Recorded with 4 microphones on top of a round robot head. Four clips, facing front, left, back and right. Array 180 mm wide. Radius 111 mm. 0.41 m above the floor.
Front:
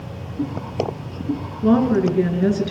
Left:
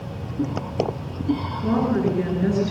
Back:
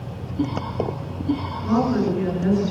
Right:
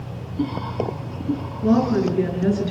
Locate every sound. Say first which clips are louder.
1.6 s a woman speaking: right 3 dB, front 4 dB; straight ahead, 7.5 m